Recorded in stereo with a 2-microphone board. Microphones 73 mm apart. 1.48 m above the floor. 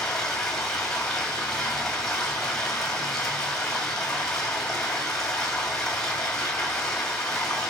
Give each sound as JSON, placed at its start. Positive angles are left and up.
{"t": 0.0, "sound": "running water", "side_deg": 5, "distance_m": 2.0}